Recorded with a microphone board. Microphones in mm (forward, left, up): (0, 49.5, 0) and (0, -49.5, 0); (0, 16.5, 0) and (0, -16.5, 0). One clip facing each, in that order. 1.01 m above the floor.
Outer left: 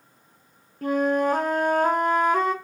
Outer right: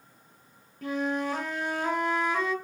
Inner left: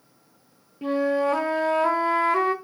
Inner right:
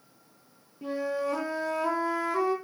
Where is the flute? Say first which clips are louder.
Outer left 8 dB, inner left 8 dB; 50° left (ahead or behind), 1.0 m.